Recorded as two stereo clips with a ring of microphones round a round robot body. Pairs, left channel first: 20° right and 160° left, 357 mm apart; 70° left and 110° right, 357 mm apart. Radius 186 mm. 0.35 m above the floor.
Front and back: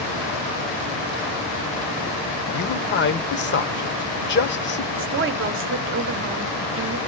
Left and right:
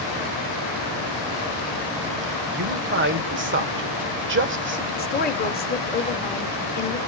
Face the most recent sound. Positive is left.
turn(degrees=120)